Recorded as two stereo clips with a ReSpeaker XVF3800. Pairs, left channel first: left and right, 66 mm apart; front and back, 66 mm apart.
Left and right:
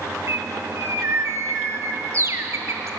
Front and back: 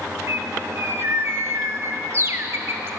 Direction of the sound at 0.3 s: 130° right.